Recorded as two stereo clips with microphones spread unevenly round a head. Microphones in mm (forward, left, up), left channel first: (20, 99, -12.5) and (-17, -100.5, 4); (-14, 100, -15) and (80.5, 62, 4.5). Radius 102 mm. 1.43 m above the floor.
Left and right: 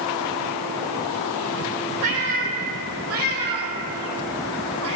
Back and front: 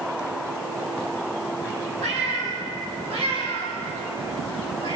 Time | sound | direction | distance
2.0 | a cat meowing | 50° right | 4.5 m